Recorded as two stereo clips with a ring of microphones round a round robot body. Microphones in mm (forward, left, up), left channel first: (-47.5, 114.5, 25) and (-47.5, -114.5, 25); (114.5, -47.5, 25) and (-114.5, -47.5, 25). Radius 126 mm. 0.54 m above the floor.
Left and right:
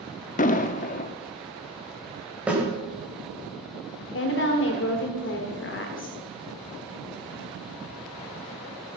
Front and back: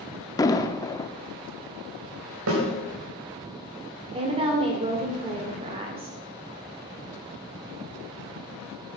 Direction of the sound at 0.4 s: 65° left.